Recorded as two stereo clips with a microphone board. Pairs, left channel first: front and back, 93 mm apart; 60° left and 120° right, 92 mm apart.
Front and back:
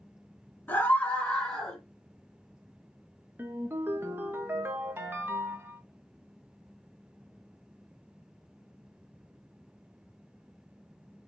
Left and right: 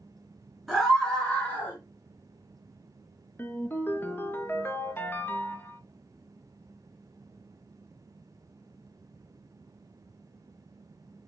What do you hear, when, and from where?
0.7 s a scream: 35° right, 1.8 m; by 1.8 s 75° left, 1.7 m
3.4 s a ringtone: 120° left, 0.6 m